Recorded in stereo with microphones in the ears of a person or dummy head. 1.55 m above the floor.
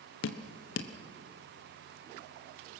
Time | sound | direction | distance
0.2 | dripping | 65° left (ahead or behind) | 1.0 m